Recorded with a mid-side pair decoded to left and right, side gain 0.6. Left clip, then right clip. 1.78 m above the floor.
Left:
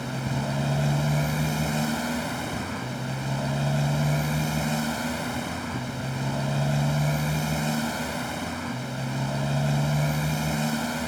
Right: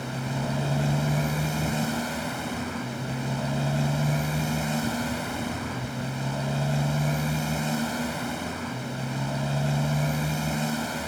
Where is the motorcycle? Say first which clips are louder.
Left 1 dB; 10° left.